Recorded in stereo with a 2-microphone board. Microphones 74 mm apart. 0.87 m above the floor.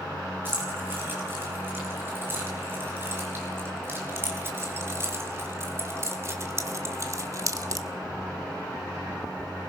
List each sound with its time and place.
0.5 s keys jangling: 25° right (ahead or behind), 5.5 m; by 7.9 s 50° right (ahead or behind), 1.0 m